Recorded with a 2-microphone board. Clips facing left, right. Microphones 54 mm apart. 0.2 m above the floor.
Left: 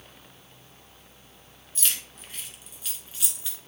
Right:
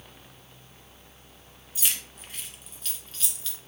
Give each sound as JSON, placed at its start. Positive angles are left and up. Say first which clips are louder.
{"t": 1.8, "sound": "keys jangling", "louder": "even", "side_deg": -10, "distance_m": 1.8}